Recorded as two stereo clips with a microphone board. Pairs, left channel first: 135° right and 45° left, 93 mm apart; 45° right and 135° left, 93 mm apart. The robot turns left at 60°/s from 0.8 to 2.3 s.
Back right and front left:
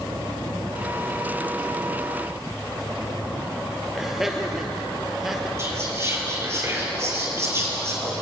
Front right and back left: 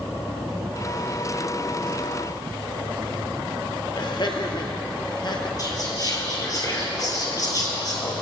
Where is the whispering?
10° right, 3 m.